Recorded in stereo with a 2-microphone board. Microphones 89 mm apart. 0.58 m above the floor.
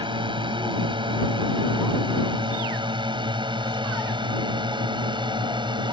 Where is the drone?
65° right (ahead or behind); by 5.9 s 60° right (ahead or behind).